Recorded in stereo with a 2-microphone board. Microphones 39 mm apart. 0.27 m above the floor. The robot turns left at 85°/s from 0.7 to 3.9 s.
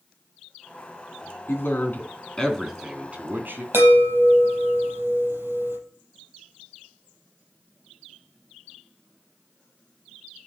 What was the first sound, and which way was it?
A man speaking, 100° left.